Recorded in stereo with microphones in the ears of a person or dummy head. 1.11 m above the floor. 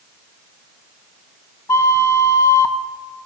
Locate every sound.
1.7 s a flute: 15° left (ahead or behind), 0.6 m